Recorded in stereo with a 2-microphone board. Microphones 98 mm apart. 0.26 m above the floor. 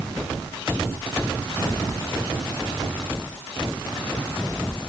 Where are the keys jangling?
No keys jangling in this recording.